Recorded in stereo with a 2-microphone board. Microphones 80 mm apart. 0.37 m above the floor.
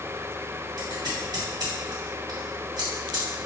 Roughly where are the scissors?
Right.